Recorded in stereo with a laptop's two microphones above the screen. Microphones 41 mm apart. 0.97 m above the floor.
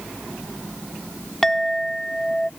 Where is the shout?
I don't hear a shout.